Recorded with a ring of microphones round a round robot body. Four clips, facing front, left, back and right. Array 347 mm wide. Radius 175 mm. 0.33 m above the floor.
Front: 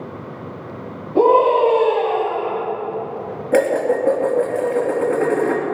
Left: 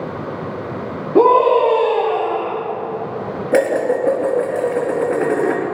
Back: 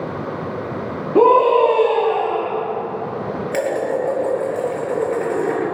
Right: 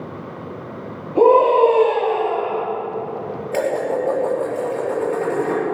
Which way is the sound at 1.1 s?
120° left.